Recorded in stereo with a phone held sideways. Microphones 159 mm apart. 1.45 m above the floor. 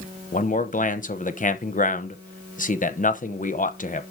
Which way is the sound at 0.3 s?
55° left (ahead or behind).